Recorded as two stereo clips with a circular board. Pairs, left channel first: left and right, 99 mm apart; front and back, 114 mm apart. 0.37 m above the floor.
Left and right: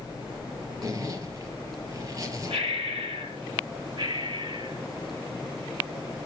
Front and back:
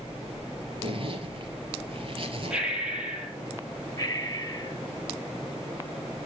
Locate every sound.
0.8 s a zipper: 140° right, 2.5 m
2.5 s breathing: 100° right, 7.5 m
4.0 s breathing: 60° right, 1.9 m